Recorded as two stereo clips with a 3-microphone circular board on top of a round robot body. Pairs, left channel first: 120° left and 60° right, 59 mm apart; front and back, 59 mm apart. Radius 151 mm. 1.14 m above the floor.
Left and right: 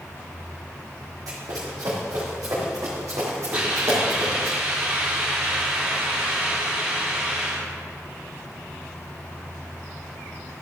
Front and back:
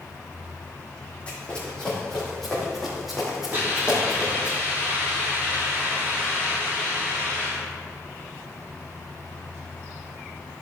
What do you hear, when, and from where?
1.3 s running footsteps: 70° right, 3 m; by 4.5 s 105° right, 3.5 m
3.5 s a hiss: 125° right, 3.5 m